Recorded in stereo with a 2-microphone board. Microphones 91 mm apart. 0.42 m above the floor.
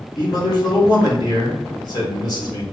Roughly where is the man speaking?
Left.